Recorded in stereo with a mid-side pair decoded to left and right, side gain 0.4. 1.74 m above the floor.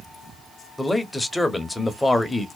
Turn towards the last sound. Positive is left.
turn(degrees=15)